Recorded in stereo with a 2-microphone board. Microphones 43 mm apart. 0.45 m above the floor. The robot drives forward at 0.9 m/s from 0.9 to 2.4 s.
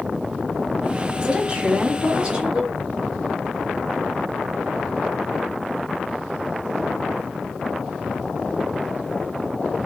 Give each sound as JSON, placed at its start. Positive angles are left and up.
{"t": 1.2, "sound": "a woman speaking", "side_deg": -15, "distance_m": 1.3}